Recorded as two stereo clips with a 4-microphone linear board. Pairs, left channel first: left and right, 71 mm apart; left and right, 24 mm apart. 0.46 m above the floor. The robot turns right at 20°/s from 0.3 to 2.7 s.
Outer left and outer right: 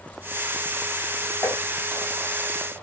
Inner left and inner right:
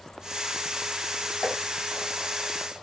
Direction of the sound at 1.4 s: 45° left (ahead or behind).